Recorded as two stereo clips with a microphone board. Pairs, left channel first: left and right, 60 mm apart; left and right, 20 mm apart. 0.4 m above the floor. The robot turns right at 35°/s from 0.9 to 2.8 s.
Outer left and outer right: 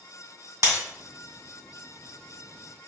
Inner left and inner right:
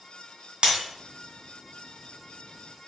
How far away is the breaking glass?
About 1.6 m.